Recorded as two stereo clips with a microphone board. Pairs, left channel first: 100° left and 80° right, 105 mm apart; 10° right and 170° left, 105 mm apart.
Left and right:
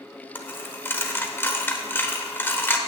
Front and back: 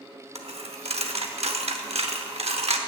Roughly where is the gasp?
I don't hear a gasp.